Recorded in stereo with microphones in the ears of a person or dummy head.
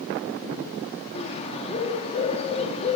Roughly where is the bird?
Left.